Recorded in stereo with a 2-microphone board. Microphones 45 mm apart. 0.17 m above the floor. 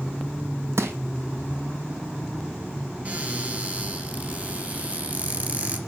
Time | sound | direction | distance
0.8 | crushing | 80° right | 1.6 m
3.0 | a cupboard door | 35° right (ahead or behind) | 3 m